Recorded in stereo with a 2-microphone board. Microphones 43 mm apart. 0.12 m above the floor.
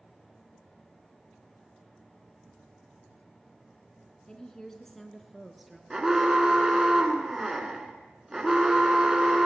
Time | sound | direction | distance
4.3 | a woman speaking | 20° left (ahead or behind) | 1.2 m
5.9 | an alarm | 10° right (ahead or behind) | 1.6 m